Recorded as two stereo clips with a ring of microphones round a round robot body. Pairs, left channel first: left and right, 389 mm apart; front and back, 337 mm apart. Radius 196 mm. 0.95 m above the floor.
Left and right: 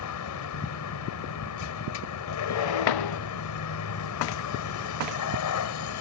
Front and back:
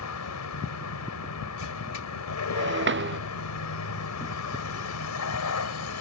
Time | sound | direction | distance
0.0 | a vehicle | 40° left | ?
2.5 | breaking glass | 125° left | ?